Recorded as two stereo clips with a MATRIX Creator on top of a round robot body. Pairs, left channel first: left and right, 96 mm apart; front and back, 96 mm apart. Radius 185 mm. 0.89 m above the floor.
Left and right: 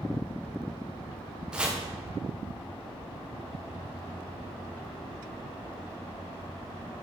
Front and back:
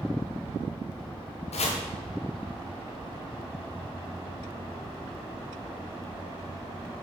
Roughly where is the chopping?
Ahead.